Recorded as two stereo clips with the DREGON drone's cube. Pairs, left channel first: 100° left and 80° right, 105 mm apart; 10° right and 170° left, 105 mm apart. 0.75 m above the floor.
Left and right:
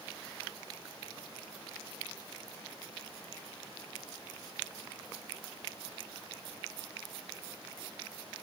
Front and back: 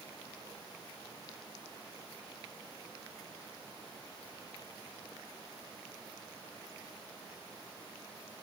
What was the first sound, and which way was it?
Only background noise.